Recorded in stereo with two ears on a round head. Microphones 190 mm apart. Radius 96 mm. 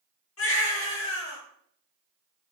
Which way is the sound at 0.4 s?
75° left (ahead or behind).